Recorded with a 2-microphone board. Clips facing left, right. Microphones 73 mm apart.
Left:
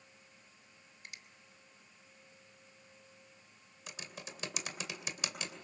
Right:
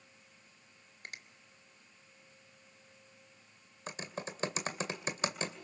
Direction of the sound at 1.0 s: 55° right (ahead or behind).